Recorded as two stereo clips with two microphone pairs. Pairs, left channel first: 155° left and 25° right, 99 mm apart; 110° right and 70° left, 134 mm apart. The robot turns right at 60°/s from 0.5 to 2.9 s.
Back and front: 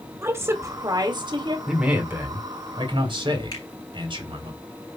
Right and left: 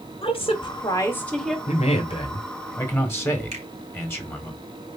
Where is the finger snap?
110° left, 3 m.